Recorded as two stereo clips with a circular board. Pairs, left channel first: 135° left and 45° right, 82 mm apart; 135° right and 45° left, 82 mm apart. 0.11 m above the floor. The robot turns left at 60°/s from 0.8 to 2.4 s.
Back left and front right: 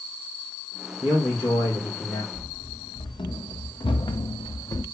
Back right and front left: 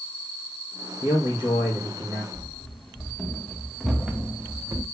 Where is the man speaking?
125° right, 4.5 m; by 2.2 s 160° left, 4.5 m.